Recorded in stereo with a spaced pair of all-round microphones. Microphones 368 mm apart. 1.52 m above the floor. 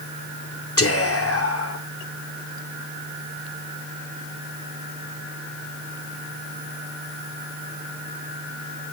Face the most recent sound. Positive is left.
turn(degrees=40)  # may be behind; listen again after turning